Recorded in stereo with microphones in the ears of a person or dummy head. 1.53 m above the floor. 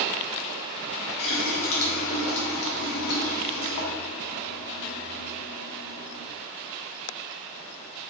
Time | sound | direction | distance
1.2 | a running tap | 55° left (ahead or behind) | 1.2 m